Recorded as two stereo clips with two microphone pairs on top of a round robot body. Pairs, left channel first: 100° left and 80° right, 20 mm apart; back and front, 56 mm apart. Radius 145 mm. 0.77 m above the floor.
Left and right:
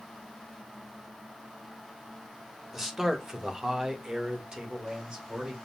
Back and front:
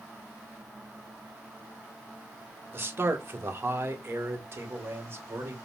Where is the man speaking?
Straight ahead, 1.5 m; by 5.5 s 35° right, 2.5 m.